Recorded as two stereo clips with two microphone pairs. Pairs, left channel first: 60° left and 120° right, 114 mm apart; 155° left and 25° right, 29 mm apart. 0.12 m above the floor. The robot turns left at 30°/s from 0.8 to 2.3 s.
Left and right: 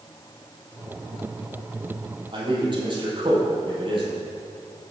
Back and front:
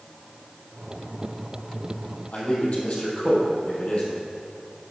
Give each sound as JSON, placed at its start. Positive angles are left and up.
{"t": 2.3, "sound": "a man speaking", "azimuth_deg": -165, "distance_m": 3.0}